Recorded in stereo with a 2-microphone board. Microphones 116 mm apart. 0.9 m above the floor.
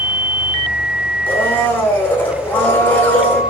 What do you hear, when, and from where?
1.3 s a blender: 15° left (ahead or behind), 3 m